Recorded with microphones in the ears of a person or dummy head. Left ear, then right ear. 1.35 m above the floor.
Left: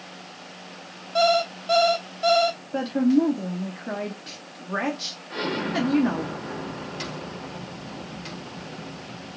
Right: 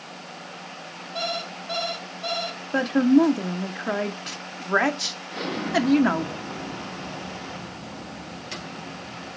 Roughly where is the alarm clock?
Left.